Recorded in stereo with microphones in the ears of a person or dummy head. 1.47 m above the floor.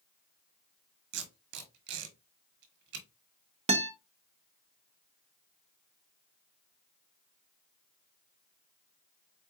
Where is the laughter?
No laughter in this recording.